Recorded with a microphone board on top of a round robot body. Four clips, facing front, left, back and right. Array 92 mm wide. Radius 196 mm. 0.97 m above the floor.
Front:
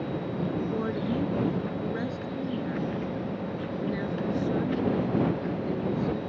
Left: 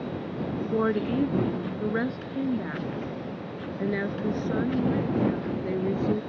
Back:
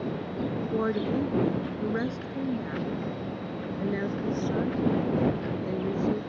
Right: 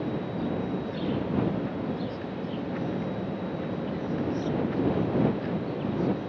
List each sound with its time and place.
0.7 s a woman speaking: 115° left; by 6.2 s 105° left